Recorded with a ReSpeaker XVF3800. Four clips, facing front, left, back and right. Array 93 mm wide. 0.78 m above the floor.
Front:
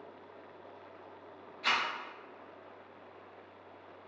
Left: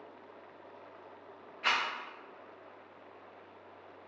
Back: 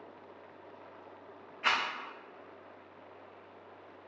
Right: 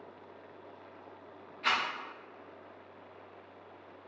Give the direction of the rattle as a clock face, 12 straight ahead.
7 o'clock.